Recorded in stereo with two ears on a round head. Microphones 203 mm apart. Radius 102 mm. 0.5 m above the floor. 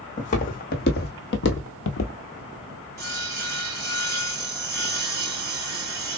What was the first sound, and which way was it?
Footsteps, 35° left (ahead or behind).